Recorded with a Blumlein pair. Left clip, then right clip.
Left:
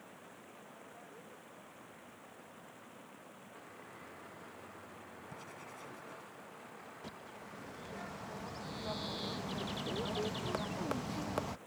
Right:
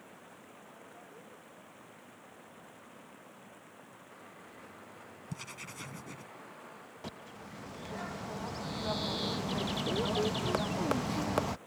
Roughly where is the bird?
Ahead.